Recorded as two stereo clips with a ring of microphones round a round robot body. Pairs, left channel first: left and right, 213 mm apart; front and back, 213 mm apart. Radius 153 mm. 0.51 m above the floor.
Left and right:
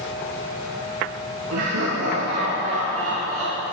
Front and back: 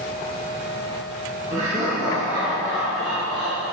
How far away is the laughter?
About 5 m.